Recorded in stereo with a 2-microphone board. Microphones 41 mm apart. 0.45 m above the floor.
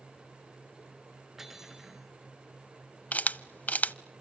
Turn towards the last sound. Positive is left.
turn(degrees=40)  # may be behind; listen again after turning